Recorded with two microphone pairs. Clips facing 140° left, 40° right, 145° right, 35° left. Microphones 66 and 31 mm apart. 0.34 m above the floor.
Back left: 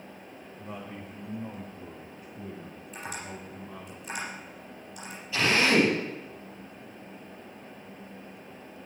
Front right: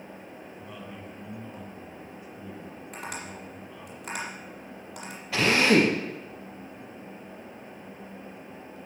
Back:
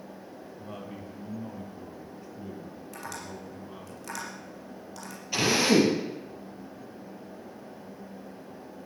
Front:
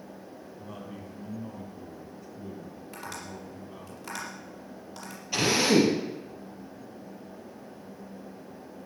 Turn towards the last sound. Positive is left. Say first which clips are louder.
# front right 2 dB, even
turn(degrees=-60)